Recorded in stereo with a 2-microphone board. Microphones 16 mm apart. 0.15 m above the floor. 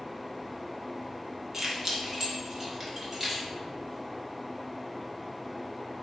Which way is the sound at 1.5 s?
25° right (ahead or behind).